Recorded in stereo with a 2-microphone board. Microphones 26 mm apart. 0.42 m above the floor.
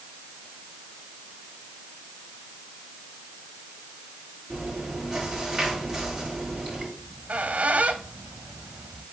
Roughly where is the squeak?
Right.